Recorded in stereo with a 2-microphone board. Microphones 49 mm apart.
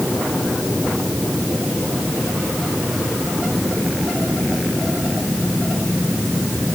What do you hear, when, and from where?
Only background noise.